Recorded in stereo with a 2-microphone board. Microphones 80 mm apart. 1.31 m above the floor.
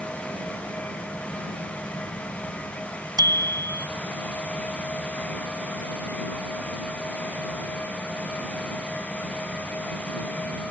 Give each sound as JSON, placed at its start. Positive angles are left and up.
{"t": 3.2, "sound": "a bicycle bell", "side_deg": -55}